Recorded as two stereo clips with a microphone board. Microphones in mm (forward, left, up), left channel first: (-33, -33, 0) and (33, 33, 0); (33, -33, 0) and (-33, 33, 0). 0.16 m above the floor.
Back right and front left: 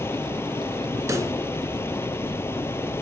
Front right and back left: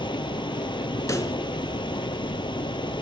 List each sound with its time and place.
0.0 s running water: 70° right, 0.9 m
1.1 s a pop: straight ahead, 1.9 m